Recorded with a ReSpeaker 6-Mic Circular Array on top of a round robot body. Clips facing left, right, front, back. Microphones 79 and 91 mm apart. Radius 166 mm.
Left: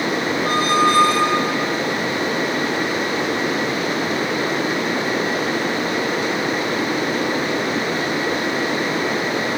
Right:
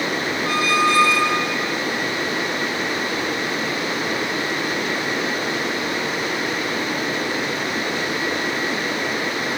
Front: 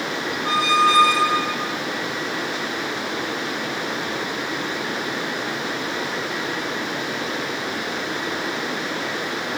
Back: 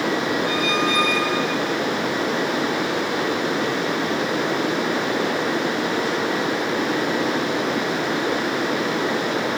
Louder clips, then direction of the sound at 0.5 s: Left 2 dB, front 3 dB; 50° left.